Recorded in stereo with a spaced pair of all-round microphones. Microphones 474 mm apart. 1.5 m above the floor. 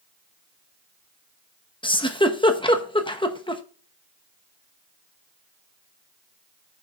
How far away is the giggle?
About 0.8 m.